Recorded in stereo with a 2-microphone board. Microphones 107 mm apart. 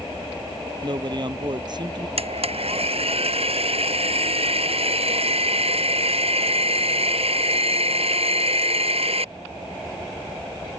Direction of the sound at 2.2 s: 70° right (ahead or behind).